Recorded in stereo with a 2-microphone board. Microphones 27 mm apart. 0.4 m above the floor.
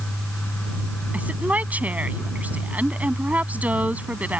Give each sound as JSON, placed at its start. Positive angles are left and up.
{"t": 1.1, "sound": "a woman speaking", "side_deg": -70}